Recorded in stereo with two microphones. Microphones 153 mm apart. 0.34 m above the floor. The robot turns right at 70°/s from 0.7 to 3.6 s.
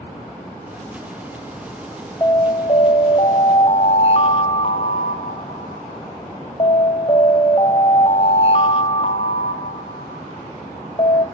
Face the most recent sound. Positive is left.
turn(degrees=125)